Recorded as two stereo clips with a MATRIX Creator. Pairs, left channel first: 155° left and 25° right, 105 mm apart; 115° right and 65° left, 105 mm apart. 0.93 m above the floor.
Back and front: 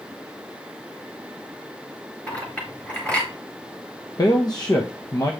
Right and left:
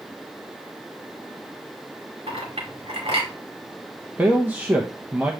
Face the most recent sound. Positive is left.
turn(degrees=135)